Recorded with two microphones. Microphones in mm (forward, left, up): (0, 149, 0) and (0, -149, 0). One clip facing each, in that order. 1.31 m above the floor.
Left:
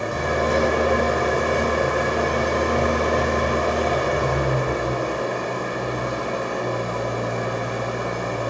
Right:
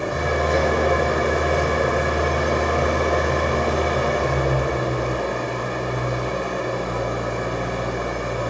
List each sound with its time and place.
0.0 s an engine running: 40° left (ahead or behind), 0.8 m